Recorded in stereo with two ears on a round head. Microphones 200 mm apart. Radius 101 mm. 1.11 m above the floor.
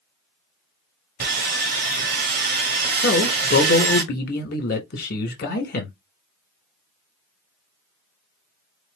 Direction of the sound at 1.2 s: 45° right (ahead or behind).